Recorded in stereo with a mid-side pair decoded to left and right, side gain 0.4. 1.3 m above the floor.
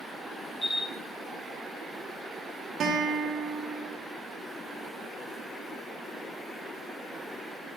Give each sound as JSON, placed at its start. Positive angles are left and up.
{"t": 0.6, "sound": "a camera shutter", "azimuth_deg": 50, "distance_m": 1.6}
{"t": 2.8, "sound": "a guitar", "azimuth_deg": -65, "distance_m": 0.7}